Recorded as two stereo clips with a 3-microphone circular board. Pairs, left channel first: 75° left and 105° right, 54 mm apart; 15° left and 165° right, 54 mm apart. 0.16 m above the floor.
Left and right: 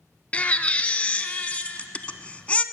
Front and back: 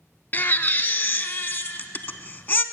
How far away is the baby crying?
About 0.5 m.